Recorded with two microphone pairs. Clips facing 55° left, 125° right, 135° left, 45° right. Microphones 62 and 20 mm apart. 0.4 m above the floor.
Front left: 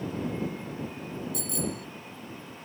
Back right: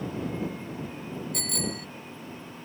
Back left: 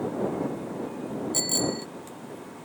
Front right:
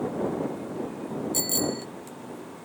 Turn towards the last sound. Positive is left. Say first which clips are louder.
# even, back left 1 dB
turn(degrees=-140)